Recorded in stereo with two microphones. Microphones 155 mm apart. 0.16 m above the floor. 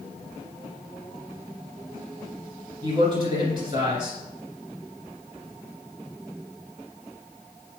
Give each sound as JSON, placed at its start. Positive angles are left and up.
{"t": 2.8, "sound": "a man speaking", "side_deg": -30, "distance_m": 2.0}